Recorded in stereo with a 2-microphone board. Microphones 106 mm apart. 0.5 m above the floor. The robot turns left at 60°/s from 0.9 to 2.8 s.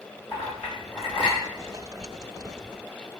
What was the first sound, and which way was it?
A clink, 60° left (ahead or behind).